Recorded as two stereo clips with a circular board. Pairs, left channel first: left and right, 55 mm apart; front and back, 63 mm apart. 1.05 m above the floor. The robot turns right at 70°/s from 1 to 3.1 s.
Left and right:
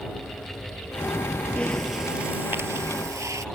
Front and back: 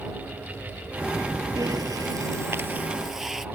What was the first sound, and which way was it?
Breathing, 160° left.